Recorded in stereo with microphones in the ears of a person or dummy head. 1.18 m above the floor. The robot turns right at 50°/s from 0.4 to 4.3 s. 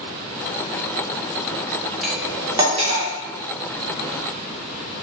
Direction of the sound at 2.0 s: 5° left (ahead or behind).